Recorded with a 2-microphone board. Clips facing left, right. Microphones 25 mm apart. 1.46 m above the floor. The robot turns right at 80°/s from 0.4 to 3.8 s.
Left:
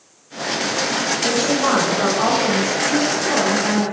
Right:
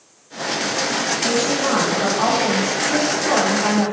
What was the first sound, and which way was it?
A woman speaking, 85° left.